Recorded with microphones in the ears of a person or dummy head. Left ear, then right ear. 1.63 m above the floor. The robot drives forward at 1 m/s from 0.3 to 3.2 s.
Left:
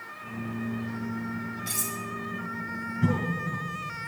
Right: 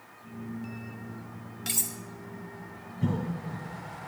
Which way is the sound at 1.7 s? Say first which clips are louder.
Right 2 dB; 35° right (ahead or behind).